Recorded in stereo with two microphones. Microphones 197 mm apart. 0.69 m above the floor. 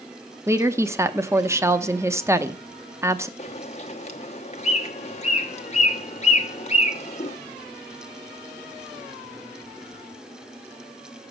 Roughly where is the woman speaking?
Centre.